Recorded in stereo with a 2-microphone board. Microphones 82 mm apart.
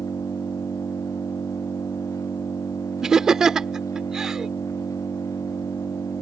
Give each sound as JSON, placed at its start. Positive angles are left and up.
{"t": 0.0, "sound": "an engine running", "side_deg": 45}
{"t": 3.0, "sound": "laughter", "side_deg": -10}